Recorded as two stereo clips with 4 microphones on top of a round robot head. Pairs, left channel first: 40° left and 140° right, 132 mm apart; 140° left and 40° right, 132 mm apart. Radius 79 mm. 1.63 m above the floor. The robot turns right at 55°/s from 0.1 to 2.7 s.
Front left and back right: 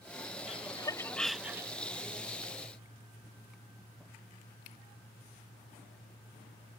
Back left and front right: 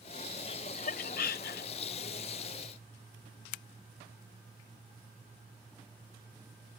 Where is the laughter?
85° left; by 1.7 s 155° left.